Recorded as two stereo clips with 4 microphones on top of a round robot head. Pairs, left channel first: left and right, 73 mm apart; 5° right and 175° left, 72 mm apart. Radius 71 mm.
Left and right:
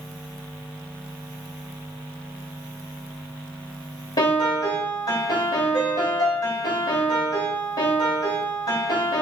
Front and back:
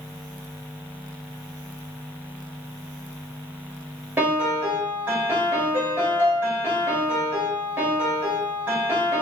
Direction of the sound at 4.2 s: 115° left.